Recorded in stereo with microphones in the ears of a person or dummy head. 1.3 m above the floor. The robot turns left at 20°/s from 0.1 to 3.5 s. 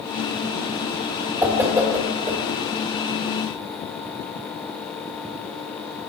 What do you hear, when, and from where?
1.4 s a whoosh: 5° right (ahead or behind), 1.3 m; by 2.6 s 25° right (ahead or behind), 1.3 m